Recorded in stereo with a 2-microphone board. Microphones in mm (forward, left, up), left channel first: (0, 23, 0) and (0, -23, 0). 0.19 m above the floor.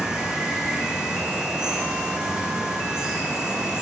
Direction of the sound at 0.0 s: 15° right (ahead or behind).